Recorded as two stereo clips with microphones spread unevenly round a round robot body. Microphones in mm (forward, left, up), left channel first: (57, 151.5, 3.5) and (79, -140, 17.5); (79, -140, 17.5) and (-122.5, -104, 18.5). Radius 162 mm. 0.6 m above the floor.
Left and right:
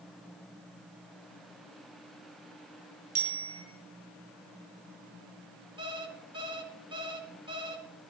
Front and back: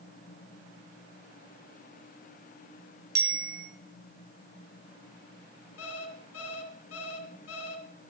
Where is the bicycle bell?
150° right, 5 m.